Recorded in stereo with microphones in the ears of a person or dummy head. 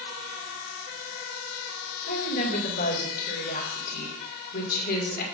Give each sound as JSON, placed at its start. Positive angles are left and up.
{"t": 2.1, "sound": "a woman speaking", "side_deg": 50, "distance_m": 2.0}